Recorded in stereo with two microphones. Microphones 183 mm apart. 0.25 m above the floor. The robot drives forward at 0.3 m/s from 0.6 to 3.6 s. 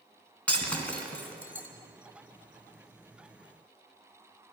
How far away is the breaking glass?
About 1.6 m.